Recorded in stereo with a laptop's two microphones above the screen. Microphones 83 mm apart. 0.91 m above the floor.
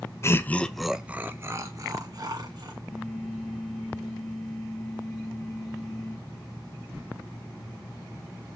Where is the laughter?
30° left (ahead or behind), 0.5 m; by 2.7 s 55° right (ahead or behind), 1.1 m.